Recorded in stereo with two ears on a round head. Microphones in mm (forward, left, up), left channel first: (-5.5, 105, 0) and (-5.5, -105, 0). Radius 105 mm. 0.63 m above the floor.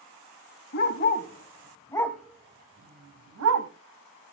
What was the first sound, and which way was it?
A dog barking, 45° left (ahead or behind).